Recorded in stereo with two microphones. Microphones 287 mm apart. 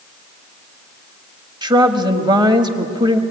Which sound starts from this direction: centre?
A woman speaking, at 1.6 s.